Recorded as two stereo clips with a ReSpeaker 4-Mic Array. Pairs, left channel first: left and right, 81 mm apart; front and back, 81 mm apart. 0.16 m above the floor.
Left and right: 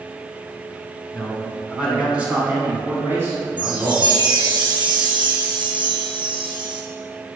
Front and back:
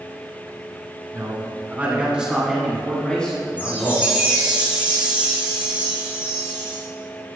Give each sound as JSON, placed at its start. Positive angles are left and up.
{"t": 1.1, "sound": "a man speaking", "azimuth_deg": -175, "distance_m": 1.7}
{"t": 3.6, "sound": "a chime", "azimuth_deg": -105, "distance_m": 1.7}